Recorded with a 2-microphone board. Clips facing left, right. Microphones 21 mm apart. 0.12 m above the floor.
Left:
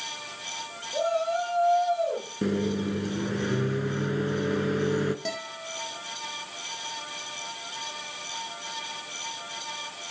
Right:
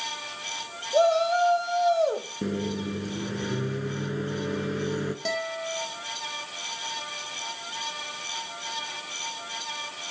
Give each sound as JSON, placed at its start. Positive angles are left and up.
{"t": 0.9, "sound": "a shout", "side_deg": -70, "distance_m": 4.5}
{"t": 2.4, "sound": "a microwave", "side_deg": 10, "distance_m": 0.9}
{"t": 5.2, "sound": "a guitar", "side_deg": -15, "distance_m": 4.0}